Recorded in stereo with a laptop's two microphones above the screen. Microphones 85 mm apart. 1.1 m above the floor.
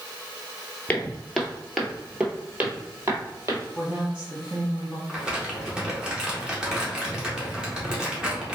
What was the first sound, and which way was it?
Footsteps, 20° left (ahead or behind).